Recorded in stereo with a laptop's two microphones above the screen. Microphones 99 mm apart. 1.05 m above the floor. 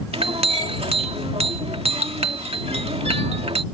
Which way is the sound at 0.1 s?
80° right.